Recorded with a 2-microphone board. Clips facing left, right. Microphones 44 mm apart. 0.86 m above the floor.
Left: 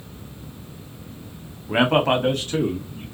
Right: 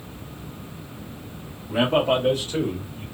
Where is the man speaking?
55° left (ahead or behind), 0.7 m; by 3.0 s 45° left (ahead or behind), 1.4 m.